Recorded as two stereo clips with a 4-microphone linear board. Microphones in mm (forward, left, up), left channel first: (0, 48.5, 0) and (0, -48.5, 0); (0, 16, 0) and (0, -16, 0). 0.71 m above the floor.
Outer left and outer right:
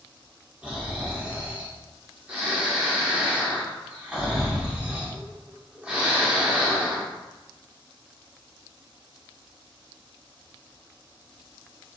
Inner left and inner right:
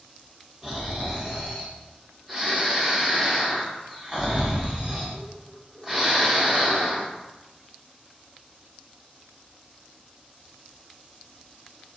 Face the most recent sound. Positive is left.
turn(degrees=-15)  # may be behind; listen again after turning